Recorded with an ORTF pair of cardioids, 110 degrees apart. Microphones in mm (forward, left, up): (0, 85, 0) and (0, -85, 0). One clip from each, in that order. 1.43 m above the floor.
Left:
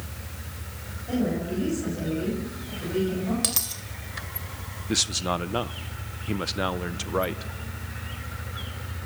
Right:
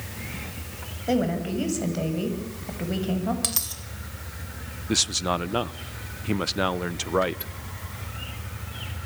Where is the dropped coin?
5° left, 3 m.